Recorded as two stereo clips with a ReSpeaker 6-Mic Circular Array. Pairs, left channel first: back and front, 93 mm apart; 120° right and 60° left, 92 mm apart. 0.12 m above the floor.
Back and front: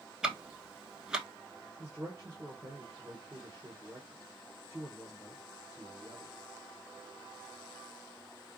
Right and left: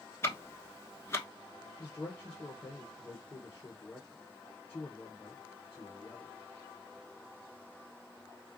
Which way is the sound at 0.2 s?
75° right.